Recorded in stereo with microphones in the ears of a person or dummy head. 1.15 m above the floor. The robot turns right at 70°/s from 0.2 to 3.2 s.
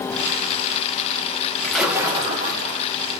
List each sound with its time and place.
1.6 s a splash: 170° left, 1.8 m; by 2.9 s 105° right, 1.8 m